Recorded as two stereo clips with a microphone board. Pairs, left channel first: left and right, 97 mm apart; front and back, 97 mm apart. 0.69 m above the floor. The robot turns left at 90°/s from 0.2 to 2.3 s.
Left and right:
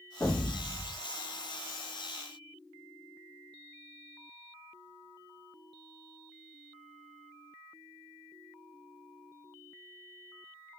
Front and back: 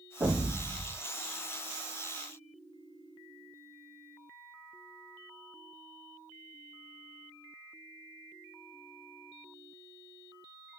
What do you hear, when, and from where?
0.2 s an explosion: 125° left, 1.2 m; by 1.0 s 55° left, 1.2 m